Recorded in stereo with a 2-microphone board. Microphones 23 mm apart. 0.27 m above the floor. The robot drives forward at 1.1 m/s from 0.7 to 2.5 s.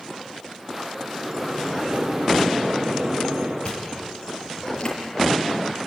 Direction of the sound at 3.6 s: 40° left (ahead or behind).